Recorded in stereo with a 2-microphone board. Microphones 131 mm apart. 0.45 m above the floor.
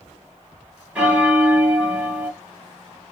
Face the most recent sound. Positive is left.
turn(degrees=-10)  # may be behind; listen again after turning